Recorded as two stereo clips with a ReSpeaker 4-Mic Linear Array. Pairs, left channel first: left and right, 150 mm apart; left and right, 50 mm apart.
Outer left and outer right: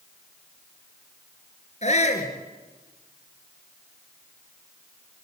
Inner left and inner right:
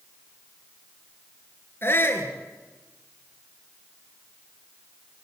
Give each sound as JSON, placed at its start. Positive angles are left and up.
{"t": 1.8, "sound": "a shout", "side_deg": 45, "distance_m": 4.0}